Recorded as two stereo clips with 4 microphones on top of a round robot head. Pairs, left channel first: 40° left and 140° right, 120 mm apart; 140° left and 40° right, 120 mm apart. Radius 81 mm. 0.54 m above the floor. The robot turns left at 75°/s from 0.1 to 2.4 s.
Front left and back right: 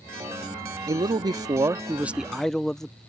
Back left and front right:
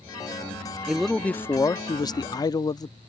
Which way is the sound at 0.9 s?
120° right.